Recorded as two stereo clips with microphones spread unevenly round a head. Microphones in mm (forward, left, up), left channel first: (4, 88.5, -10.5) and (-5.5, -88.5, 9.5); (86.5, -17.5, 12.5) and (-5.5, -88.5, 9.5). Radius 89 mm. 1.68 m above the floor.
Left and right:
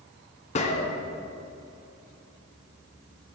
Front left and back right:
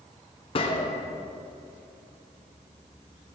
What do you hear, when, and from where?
0.6 s a gunshot: 40° left, 0.7 m